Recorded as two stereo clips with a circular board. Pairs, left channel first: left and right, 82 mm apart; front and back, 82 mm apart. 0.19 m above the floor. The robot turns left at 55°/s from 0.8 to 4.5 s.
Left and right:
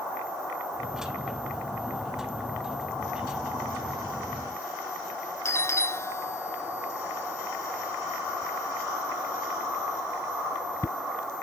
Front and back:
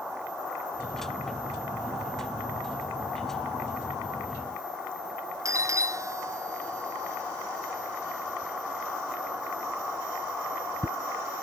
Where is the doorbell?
140° left.